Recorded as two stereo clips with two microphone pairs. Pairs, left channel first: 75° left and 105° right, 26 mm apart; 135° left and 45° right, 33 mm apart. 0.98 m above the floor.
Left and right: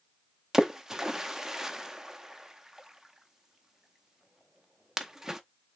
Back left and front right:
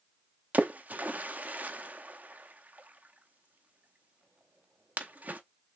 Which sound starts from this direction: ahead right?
A splash, at 0.5 s.